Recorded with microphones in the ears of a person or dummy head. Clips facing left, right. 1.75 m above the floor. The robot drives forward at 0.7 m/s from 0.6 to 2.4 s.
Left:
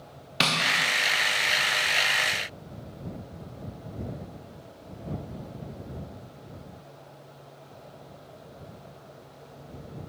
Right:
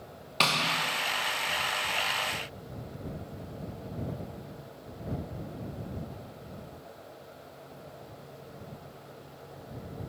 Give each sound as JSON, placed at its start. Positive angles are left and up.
{"t": 0.4, "sound": "tapping", "side_deg": 20, "distance_m": 0.6}